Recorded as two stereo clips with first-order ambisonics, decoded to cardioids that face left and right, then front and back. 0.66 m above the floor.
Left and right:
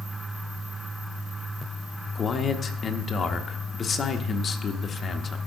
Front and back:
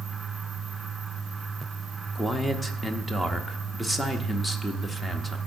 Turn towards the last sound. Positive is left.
turn(degrees=85)